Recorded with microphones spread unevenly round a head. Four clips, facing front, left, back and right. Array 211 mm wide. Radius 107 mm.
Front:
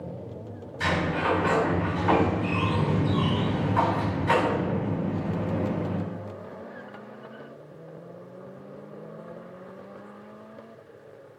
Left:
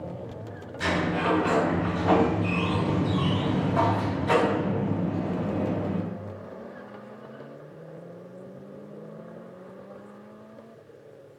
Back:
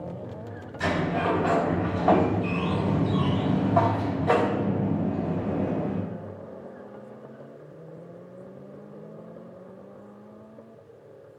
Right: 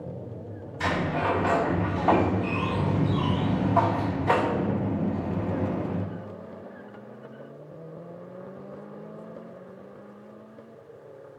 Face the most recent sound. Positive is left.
turn(degrees=-155)